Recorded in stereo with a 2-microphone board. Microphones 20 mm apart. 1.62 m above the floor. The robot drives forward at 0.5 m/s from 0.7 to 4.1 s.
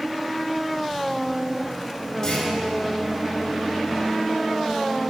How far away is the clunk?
About 5.5 m.